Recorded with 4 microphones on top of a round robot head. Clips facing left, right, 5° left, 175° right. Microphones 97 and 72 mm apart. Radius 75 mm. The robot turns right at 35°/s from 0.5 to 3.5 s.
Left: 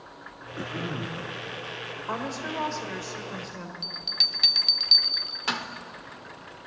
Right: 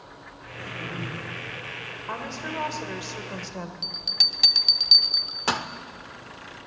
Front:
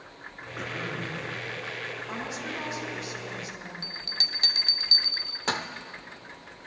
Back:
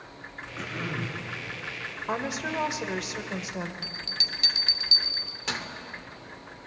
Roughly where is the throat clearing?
Left.